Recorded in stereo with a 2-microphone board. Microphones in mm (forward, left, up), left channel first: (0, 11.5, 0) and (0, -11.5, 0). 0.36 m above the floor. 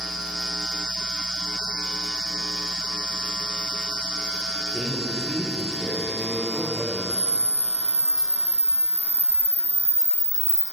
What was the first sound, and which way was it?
A man speaking, 20° right (ahead or behind).